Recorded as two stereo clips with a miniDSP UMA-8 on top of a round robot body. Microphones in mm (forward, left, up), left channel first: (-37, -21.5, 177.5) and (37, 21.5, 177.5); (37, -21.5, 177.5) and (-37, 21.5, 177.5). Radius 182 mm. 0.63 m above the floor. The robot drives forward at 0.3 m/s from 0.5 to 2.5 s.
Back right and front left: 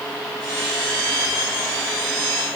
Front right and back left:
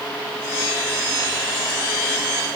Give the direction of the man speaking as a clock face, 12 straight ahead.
No man speaking in this recording.